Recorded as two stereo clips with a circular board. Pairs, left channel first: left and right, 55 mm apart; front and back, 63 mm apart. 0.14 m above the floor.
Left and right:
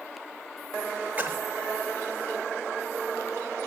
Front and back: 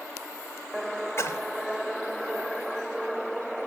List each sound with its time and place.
1.2 s a splash: 35° right, 1.0 m